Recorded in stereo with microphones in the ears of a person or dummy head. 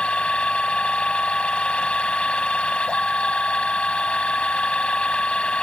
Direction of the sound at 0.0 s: 10° left (ahead or behind).